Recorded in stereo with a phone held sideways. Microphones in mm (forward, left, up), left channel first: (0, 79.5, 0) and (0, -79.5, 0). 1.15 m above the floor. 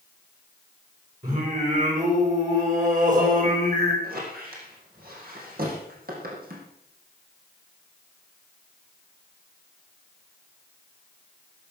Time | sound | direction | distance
1.2 | singing | 55° right (ahead or behind) | 5.5 m
4.0 | a squeak | 70° right (ahead or behind) | 5 m